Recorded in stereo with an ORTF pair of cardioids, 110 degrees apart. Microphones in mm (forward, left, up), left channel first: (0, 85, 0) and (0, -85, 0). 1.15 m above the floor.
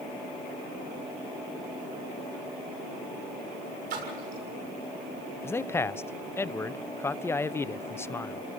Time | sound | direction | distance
3.9 | a splash | 70° right | 7 m
5.4 | a man speaking | 15° left | 0.6 m